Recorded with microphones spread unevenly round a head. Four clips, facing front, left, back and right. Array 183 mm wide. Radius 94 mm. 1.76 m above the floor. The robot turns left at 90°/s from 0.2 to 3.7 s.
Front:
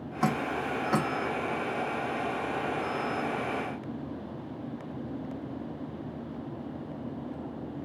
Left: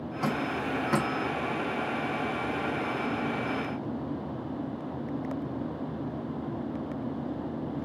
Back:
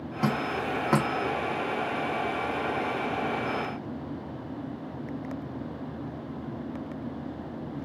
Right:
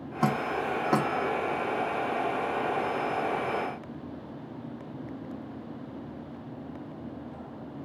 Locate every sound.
0.2 s dripping: 75° right, 1.1 m; by 1.1 s 155° right, 1.1 m